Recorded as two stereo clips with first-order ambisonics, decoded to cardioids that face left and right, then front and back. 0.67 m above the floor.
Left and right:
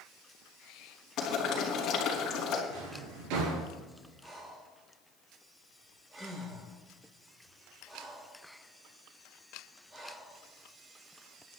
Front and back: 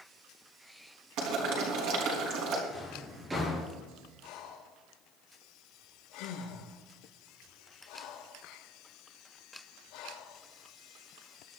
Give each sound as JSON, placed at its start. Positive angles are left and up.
{"t": 1.2, "sound": "boiling", "azimuth_deg": 145, "distance_m": 4.0}
{"t": 2.7, "sound": "a drawer", "azimuth_deg": -100, "distance_m": 4.0}
{"t": 4.2, "sound": "breathing", "azimuth_deg": -20, "distance_m": 5.0}